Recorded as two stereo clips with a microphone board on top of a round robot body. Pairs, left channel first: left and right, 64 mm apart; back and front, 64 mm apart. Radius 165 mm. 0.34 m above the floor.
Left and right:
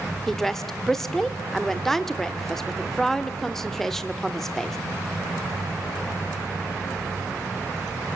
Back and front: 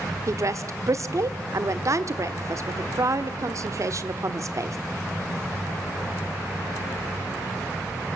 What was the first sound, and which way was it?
A woman speaking, 10° left.